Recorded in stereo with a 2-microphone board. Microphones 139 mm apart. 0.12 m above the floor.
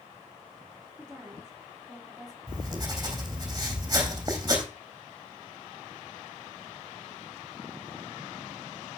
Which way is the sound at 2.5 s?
25° right (ahead or behind).